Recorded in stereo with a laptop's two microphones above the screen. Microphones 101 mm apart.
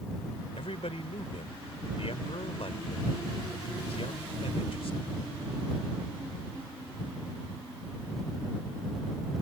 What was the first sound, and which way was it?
A man speaking, 75° left (ahead or behind).